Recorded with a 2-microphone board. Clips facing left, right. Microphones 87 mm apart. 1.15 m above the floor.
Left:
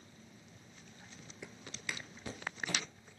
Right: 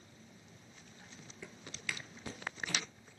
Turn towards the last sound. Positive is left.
turn(degrees=35)  # may be behind; listen again after turning